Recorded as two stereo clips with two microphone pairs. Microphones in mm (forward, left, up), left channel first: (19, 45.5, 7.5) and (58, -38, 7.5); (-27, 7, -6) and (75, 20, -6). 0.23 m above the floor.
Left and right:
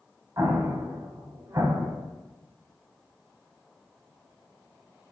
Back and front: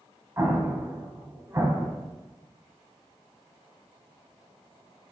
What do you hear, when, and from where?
0.4 s an explosion: 35° right, 0.6 m